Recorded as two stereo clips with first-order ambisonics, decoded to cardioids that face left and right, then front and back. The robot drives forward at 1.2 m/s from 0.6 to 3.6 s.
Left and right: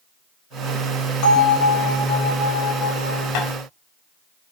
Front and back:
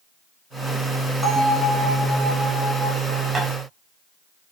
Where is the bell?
90° left, 6 m; by 3.2 s 110° left, 6.5 m.